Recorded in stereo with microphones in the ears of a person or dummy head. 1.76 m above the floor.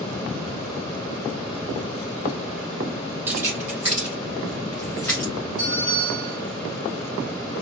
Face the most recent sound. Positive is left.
turn(degrees=-30)  # may be behind; listen again after turning